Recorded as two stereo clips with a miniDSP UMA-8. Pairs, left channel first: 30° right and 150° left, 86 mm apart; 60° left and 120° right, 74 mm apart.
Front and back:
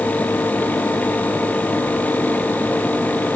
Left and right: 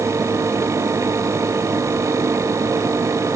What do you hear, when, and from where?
Only background noise.